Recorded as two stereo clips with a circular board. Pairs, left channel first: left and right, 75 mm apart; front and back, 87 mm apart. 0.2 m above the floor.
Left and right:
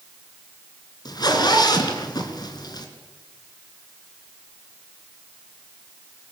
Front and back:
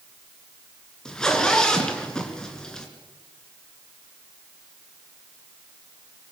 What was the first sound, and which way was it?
A zipper, 80° left.